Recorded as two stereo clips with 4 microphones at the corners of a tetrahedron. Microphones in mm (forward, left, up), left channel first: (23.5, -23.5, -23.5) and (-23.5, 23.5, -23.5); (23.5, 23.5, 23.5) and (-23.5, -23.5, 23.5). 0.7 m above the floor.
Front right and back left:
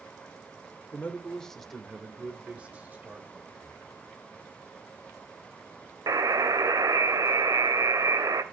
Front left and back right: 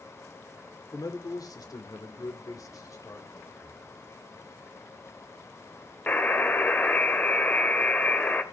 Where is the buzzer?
110° left, 1.6 m.